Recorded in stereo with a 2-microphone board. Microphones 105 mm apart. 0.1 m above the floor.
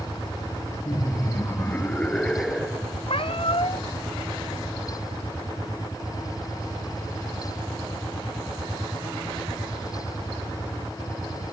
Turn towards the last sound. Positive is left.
turn(degrees=60)  # may be behind; listen again after turning